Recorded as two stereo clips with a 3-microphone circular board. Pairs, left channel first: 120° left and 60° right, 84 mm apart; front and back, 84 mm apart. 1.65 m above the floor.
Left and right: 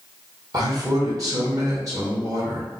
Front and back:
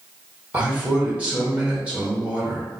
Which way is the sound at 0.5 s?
105° right.